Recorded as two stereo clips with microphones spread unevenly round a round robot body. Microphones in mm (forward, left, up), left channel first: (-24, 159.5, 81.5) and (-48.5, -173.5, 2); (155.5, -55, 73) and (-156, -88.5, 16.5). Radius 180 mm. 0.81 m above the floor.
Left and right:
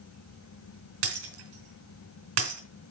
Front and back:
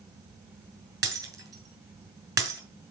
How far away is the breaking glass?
About 2.5 m.